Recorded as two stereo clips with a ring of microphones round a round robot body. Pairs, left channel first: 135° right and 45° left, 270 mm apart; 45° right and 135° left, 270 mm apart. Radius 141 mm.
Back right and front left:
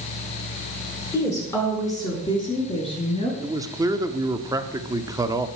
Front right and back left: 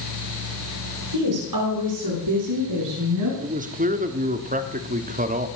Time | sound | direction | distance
1.1 | a woman speaking | 145° left | 7 m
3.4 | a man speaking | 110° left | 1.3 m